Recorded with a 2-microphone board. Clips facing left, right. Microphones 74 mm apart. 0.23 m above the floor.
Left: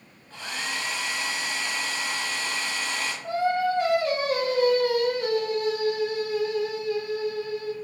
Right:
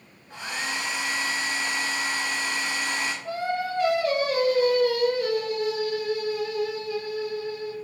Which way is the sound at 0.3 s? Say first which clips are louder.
Right 2 dB; 15° right (ahead or behind).